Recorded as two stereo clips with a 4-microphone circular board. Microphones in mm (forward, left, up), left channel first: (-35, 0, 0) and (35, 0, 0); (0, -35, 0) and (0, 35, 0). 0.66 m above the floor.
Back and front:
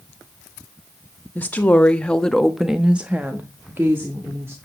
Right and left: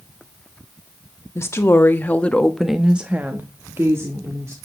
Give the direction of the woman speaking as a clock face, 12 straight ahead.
4 o'clock.